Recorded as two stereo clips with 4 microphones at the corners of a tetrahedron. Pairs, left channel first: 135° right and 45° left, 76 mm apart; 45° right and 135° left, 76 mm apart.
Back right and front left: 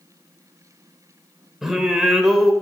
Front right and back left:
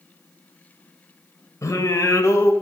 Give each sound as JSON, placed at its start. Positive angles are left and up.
{"t": 1.6, "sound": "singing", "azimuth_deg": -40, "distance_m": 1.9}